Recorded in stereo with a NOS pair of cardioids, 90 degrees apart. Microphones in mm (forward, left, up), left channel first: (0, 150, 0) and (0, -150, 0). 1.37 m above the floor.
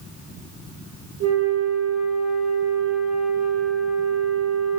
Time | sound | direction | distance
1.2 | a flute | 65° right | 3 m